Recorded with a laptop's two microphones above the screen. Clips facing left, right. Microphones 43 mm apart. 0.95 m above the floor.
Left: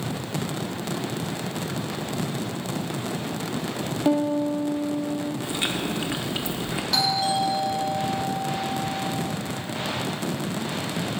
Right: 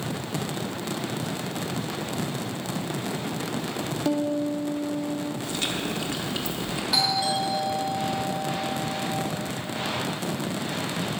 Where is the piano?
15° left (ahead or behind), 0.8 m.